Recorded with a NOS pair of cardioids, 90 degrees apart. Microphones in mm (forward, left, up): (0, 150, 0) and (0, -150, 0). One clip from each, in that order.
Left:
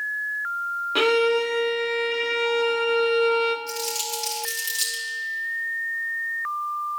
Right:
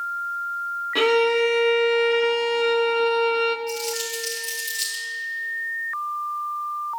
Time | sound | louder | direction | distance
0.9 | a violin | right 1 dB | 5° left | 0.9 m
3.7 | crumpling | right 1 dB | 45° left | 4.5 m